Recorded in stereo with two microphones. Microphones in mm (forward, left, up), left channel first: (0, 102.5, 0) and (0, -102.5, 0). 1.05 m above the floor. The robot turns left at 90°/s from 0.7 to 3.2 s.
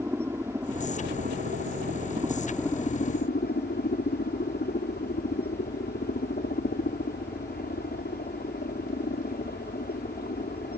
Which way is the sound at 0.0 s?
15° right.